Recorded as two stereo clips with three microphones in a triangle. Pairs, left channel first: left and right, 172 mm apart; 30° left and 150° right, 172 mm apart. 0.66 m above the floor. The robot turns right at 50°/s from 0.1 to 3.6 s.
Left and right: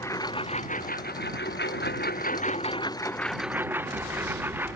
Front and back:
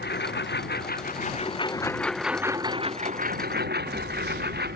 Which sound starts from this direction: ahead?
A lawn mower, at 0.0 s.